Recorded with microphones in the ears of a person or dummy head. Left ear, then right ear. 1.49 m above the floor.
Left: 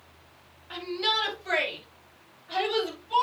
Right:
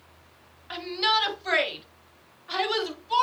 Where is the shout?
30° right (ahead or behind), 3 m; by 3.2 s 50° right (ahead or behind), 4 m.